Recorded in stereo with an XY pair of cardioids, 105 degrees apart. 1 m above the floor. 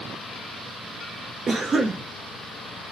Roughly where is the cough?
Ahead right.